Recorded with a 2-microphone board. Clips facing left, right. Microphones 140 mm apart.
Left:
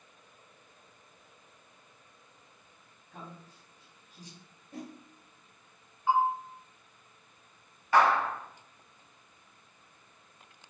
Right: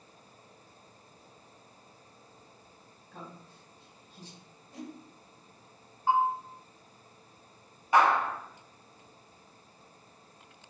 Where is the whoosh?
55° left (ahead or behind), 0.7 m.